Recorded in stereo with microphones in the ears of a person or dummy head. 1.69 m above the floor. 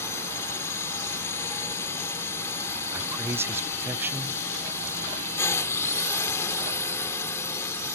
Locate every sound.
0.0 s a drone: 15° left (ahead or behind)
2.9 s a man speaking: 10° right (ahead or behind)